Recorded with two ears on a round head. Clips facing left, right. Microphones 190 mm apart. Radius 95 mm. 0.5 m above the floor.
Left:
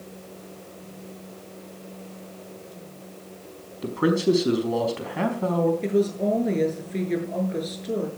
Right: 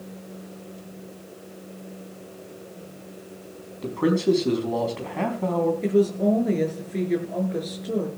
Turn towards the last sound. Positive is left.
turn(degrees=0)  # may be behind; listen again after turning